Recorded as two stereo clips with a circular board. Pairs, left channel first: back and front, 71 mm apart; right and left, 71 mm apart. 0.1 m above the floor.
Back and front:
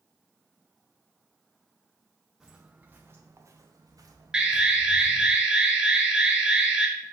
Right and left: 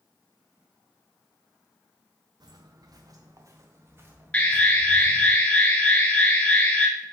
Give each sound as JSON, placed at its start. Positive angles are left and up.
{"t": 2.4, "sound": "footsteps", "azimuth_deg": 85, "distance_m": 0.8}
{"t": 4.3, "sound": "an alarm", "azimuth_deg": -60, "distance_m": 0.9}